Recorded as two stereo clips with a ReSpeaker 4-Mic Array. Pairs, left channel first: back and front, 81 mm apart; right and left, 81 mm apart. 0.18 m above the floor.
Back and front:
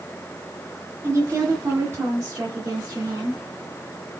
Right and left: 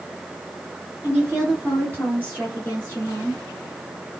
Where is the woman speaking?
10° right, 1.9 m; by 3.4 s 40° right, 2.5 m.